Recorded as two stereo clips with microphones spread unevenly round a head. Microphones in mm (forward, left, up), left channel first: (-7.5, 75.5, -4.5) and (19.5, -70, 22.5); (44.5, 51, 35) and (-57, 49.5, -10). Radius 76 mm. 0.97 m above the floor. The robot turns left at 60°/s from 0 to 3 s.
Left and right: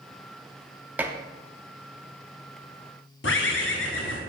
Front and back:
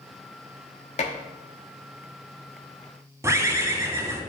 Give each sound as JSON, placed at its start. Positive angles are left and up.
{"t": 1.0, "sound": "dishes clattering", "azimuth_deg": 0, "distance_m": 1.0}
{"t": 3.2, "sound": "a bird", "azimuth_deg": 110, "distance_m": 1.7}